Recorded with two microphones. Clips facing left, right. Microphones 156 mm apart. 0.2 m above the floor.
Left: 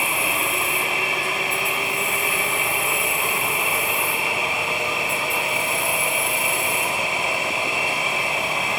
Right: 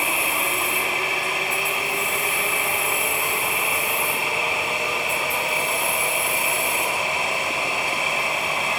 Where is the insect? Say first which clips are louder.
Even; 50° left (ahead or behind), 1.4 m.